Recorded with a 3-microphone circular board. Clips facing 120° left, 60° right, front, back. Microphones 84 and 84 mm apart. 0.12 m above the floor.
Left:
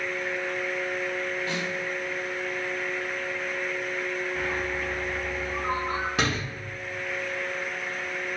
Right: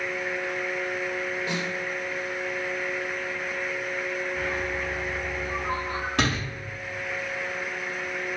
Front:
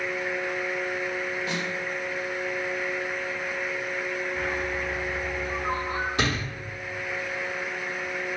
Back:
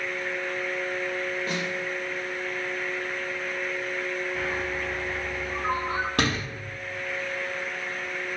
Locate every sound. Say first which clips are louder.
1.5 s a snare drum: right 1 dB, even; 135° right, 3 m
4.3 s a bird: even, front 1 dB; 165° left, 3.5 m
6.2 s a door slam: right 4 dB, back 2 dB; 155° right, 3.5 m